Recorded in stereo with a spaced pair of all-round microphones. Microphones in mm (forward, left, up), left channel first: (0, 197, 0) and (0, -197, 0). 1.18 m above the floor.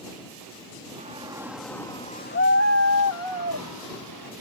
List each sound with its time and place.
1.0 s a shout: 20° right (ahead or behind); by 4.3 s 75° left (ahead or behind)